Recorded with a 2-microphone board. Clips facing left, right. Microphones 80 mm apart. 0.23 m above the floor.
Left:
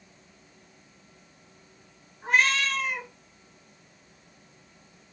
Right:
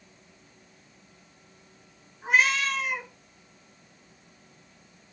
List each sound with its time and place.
2.2 s a cat meowing: 5° right (ahead or behind), 1.2 m